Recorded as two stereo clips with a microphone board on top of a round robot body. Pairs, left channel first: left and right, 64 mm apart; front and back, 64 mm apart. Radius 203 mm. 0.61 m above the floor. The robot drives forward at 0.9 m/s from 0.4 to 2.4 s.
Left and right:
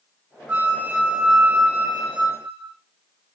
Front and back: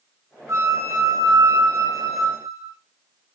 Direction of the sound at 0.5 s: 150° right.